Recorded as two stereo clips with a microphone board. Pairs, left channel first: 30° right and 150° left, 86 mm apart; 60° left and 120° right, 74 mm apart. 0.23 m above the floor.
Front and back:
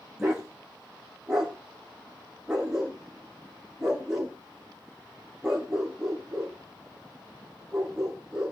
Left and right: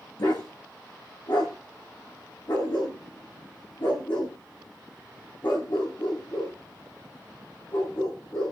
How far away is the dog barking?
About 4.5 m.